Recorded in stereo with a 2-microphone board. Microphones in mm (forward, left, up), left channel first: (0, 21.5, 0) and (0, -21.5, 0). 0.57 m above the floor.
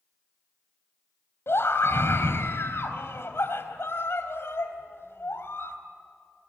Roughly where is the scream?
Left.